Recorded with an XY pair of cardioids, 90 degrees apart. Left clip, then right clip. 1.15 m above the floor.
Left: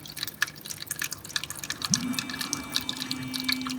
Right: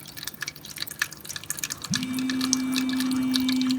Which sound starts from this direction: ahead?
A phone buzzing, at 1.9 s.